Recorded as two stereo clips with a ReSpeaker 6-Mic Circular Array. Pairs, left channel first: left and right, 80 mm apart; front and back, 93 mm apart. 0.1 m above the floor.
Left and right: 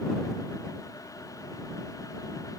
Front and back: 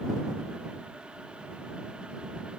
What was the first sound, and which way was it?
Only background noise.